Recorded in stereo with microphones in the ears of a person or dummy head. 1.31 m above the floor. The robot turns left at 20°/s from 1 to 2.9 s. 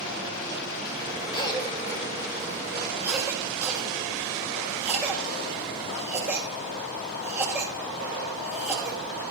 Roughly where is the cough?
Left.